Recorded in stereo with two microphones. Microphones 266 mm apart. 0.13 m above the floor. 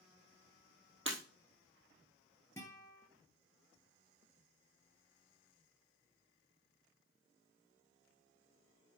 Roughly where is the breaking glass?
Right.